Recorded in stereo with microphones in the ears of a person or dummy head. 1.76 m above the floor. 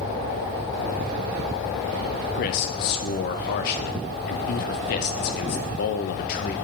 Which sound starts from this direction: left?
A man speaking, at 2.4 s.